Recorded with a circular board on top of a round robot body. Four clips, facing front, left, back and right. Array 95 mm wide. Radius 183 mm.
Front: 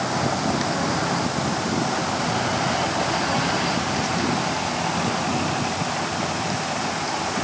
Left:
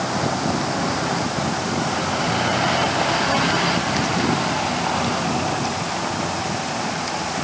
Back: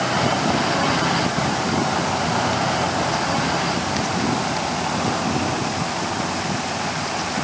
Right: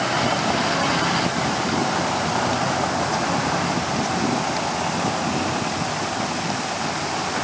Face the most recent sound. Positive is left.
No sound to turn to.